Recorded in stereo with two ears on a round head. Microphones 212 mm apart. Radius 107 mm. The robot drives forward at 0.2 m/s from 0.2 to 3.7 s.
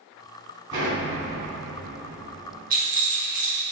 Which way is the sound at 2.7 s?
40° right (ahead or behind).